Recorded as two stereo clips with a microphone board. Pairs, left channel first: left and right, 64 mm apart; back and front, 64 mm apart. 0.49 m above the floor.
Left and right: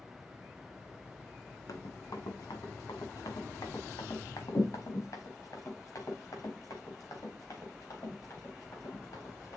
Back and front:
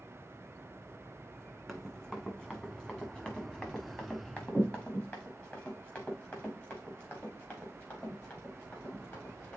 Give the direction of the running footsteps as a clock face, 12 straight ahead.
9 o'clock.